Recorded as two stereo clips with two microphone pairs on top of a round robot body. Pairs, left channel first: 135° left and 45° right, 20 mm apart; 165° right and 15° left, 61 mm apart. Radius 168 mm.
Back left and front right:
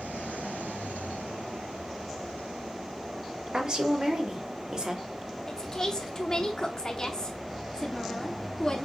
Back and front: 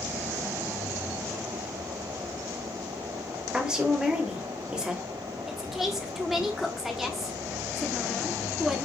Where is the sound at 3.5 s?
55° right, 1.5 m.